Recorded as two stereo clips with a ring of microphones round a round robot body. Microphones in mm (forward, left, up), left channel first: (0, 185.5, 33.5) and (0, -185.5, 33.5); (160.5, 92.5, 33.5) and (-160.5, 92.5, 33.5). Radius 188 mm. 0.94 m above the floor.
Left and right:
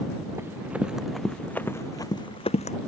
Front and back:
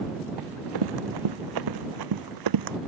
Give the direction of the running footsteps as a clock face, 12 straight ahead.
6 o'clock.